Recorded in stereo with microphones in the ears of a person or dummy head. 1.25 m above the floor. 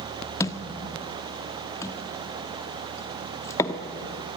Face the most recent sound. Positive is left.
turn(degrees=20)  # may be behind; listen again after turning